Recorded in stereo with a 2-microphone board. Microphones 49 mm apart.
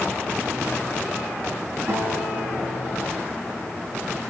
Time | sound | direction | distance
1.9 | a guitar | 65° right (ahead or behind) | 8 m